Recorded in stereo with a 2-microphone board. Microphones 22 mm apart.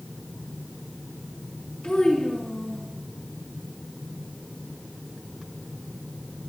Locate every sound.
1.8 s a child speaking: 80° left, 4.5 m